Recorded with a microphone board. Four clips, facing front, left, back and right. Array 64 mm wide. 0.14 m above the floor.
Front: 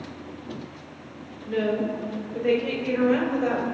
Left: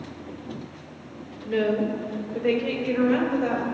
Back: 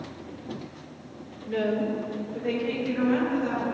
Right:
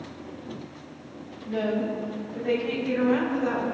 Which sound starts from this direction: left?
A woman speaking, at 1.4 s.